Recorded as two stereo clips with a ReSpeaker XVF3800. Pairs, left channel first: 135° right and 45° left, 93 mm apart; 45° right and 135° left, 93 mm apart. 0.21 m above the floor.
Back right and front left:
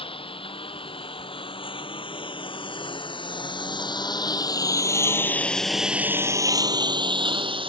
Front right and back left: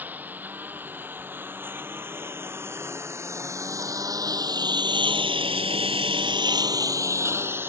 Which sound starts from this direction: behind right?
A lawn mower, at 0.0 s.